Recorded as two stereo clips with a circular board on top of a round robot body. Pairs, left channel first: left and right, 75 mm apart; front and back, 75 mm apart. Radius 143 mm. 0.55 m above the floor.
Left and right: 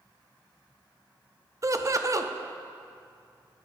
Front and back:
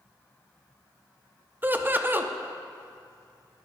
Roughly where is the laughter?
Behind right.